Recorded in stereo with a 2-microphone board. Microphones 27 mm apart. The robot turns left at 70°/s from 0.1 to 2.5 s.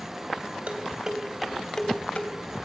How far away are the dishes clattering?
About 3 m.